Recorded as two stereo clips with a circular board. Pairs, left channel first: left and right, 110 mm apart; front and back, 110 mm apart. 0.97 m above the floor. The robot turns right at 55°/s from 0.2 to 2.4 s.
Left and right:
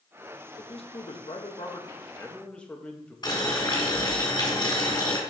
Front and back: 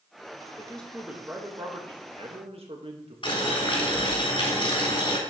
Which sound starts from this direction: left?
A man speaking, at 0.6 s.